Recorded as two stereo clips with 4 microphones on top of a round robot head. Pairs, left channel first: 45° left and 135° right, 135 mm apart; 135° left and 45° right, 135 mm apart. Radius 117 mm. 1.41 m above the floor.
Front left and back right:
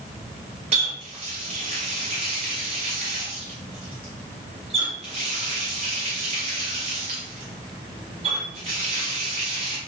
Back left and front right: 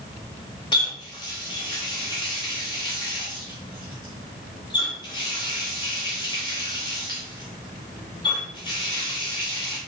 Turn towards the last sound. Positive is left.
turn(degrees=-175)